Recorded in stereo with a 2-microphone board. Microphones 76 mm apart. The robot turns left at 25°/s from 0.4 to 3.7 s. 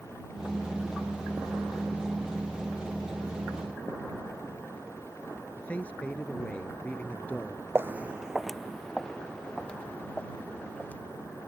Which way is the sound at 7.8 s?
35° right (ahead or behind).